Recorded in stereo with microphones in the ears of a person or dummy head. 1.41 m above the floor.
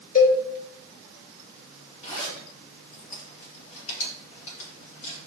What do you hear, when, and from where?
0.1 s a cowbell: 55° left (ahead or behind), 3.5 m
2.0 s a zipper: 45° left (ahead or behind), 4 m